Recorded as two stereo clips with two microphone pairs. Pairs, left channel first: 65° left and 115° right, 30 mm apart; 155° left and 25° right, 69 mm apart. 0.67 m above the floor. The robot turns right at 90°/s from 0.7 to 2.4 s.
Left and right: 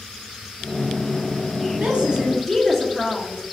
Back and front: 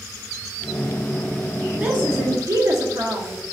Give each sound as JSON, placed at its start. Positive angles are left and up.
{"t": 1.8, "sound": "a woman speaking", "azimuth_deg": -95, "distance_m": 0.9}